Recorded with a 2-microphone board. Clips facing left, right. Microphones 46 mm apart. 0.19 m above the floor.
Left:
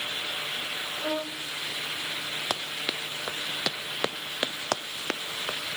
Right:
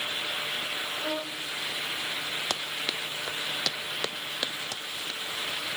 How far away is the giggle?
No giggle in this recording.